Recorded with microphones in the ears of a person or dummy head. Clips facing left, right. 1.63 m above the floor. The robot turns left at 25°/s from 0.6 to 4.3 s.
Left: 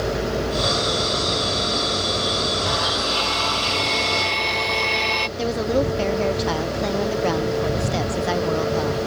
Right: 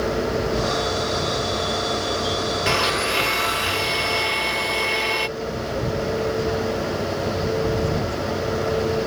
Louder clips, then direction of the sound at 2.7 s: Right 2 dB; 130° right.